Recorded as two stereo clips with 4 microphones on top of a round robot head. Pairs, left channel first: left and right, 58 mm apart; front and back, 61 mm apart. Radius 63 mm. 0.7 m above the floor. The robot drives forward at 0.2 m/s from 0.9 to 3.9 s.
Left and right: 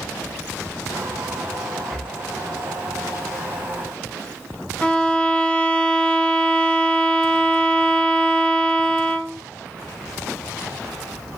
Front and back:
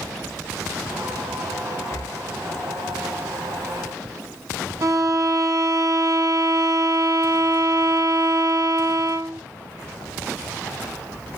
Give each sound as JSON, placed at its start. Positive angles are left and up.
{"t": 1.9, "sound": "breathing", "azimuth_deg": 0, "distance_m": 0.9}
{"t": 4.8, "sound": "a violin", "azimuth_deg": 160, "distance_m": 0.8}